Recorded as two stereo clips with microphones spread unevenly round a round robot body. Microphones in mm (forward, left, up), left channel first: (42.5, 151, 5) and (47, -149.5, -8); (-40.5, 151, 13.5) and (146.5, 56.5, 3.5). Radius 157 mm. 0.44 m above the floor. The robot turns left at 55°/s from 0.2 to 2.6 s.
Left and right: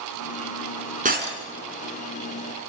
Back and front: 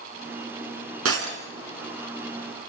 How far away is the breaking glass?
About 3.5 m.